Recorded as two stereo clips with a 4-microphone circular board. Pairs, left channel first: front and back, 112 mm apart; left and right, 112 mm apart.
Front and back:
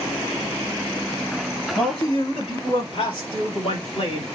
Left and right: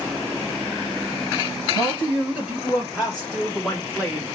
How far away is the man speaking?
About 2.5 m.